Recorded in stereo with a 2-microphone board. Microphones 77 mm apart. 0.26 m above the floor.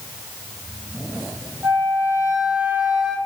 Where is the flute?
25° right (ahead or behind), 1.0 m.